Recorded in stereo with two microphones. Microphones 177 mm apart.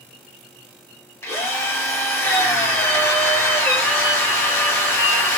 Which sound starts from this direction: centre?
A drill, at 1.2 s.